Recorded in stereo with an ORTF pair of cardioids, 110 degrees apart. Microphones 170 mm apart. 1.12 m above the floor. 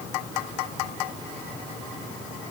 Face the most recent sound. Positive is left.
No sound to turn to.